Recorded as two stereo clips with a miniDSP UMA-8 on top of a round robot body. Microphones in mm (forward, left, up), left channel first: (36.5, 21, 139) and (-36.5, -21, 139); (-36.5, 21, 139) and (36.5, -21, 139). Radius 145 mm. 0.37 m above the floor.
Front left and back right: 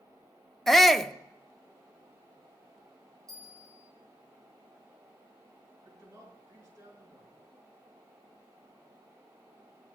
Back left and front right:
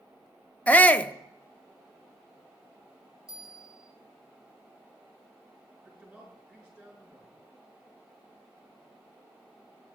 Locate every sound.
0.7 s a shout: 115° left, 0.8 m
3.3 s a bell: 110° right, 2.5 m
5.8 s a man speaking: 105° right, 8 m